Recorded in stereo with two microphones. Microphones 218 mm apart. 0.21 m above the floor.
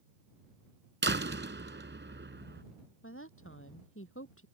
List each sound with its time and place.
1.0 s a door slam: 60° right (ahead or behind)
3.0 s a woman speaking: 70° left (ahead or behind)